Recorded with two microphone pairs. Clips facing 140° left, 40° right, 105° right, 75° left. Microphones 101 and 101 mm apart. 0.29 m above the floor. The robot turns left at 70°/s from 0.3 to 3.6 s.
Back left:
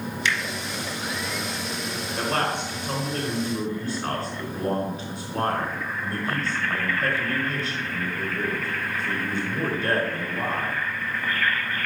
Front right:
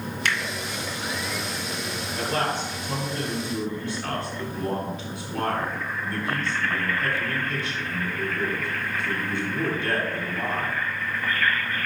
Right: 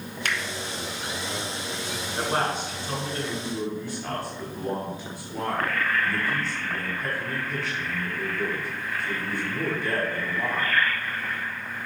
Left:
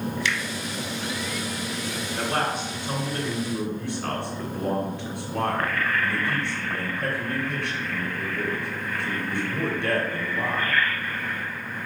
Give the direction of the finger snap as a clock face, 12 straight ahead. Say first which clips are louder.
Even, right 2 dB; 2 o'clock.